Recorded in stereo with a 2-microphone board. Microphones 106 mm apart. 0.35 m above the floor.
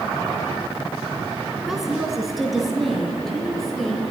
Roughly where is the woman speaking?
Centre.